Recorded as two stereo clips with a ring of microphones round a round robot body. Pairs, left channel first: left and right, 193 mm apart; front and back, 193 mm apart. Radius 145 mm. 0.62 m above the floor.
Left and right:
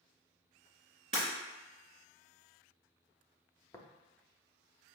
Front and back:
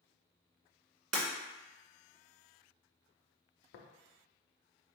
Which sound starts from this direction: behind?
Breaking glass, at 1.1 s.